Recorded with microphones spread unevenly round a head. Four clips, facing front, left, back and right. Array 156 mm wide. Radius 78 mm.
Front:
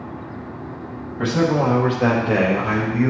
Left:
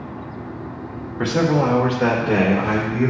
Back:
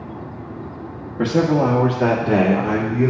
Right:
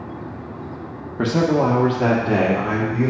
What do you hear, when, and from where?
1.2 s a man speaking: 125° right, 1.6 m; by 3.1 s 155° right, 2.5 m